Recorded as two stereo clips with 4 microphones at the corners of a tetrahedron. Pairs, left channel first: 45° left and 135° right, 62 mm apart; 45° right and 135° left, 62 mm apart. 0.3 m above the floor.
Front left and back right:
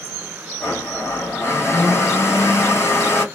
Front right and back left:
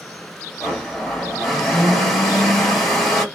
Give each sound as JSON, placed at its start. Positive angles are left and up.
{"t": 0.6, "sound": "a blender", "azimuth_deg": 40, "distance_m": 2.0}